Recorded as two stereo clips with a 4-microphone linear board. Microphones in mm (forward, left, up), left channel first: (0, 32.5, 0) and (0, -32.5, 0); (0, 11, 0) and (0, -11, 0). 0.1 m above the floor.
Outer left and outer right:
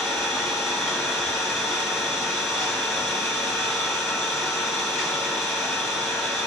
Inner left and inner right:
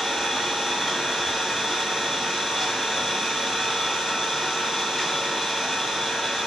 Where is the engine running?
10° left (ahead or behind), 1.4 m.